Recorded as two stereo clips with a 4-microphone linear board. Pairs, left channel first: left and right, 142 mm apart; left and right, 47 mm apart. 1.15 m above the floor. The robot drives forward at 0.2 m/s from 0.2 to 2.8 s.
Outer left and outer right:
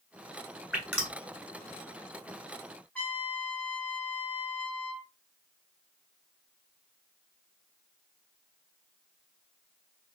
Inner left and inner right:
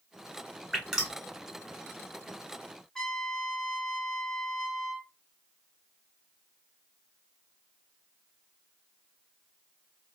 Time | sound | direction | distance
0.7 | dripping | 10° right (ahead or behind) | 1.4 m
3.0 | a trumpet | 10° left (ahead or behind) | 1.0 m